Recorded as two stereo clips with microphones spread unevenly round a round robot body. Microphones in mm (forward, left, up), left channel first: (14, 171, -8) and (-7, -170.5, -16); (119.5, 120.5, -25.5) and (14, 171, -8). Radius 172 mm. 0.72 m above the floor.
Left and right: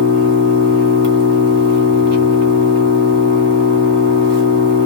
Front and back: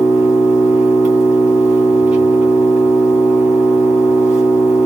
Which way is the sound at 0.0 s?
100° right.